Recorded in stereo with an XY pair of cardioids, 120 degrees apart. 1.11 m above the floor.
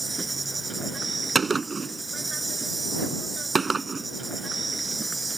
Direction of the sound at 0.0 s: 20° right.